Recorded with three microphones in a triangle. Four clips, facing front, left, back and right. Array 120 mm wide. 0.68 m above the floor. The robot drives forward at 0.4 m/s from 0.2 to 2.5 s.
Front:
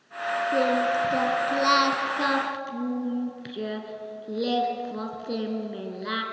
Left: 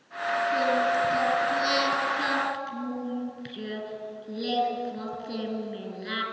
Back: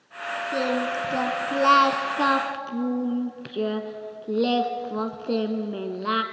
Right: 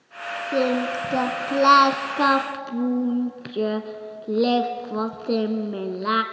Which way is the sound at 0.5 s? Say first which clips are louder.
Right 4 dB, front 2 dB; 80° right.